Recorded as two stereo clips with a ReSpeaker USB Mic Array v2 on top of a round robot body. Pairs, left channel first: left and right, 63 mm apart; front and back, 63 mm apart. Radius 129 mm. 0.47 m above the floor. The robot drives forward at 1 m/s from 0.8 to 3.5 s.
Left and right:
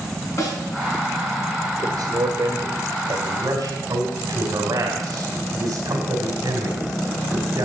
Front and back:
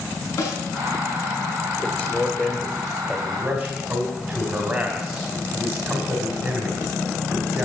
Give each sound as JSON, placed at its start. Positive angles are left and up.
{"t": 0.4, "sound": "a snare drum", "azimuth_deg": 50, "distance_m": 6.5}
{"t": 1.8, "sound": "a man speaking", "azimuth_deg": -75, "distance_m": 2.0}